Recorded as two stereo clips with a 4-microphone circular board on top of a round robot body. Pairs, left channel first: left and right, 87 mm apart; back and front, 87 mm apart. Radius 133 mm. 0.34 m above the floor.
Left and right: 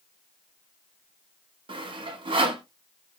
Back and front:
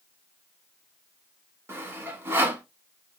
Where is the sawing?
65° right, 1.0 m.